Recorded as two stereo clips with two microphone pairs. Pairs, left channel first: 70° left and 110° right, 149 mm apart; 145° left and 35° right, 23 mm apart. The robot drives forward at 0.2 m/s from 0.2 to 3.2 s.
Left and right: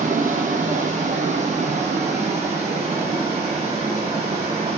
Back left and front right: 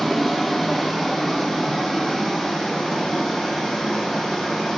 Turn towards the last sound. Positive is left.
turn(degrees=-155)